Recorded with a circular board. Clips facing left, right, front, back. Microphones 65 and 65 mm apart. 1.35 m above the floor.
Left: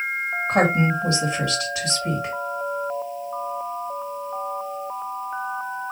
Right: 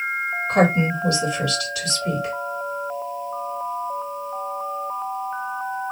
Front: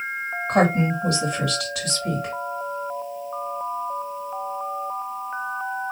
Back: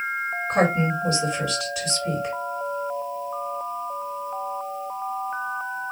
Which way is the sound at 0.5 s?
25° left.